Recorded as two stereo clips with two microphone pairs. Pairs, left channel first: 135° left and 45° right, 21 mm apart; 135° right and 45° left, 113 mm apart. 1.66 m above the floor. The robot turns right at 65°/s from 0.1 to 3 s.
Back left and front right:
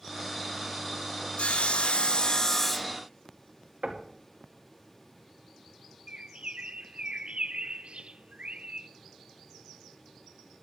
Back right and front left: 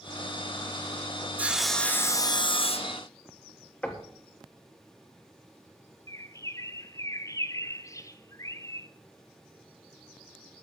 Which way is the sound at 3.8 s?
60° right.